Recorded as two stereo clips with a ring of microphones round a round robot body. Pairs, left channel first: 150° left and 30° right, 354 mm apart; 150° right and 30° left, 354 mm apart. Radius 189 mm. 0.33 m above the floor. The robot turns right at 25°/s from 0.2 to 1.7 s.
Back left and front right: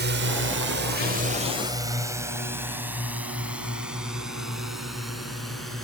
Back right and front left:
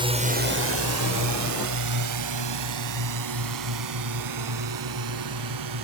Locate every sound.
0.0 s a drone: 30° right; by 5.8 s 60° left